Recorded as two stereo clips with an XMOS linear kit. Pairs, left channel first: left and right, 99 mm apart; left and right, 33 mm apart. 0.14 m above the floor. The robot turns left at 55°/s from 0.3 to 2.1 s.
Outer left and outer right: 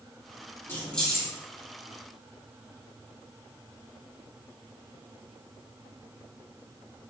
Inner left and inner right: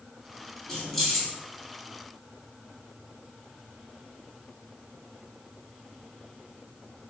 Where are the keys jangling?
25° left (ahead or behind), 1.7 m; by 1.3 s 5° right (ahead or behind), 1.7 m.